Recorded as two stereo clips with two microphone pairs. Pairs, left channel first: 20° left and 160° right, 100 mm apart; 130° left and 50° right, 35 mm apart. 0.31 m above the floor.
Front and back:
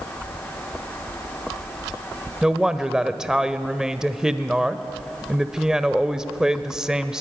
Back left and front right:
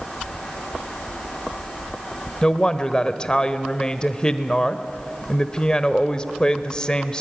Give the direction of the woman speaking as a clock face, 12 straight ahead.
8 o'clock.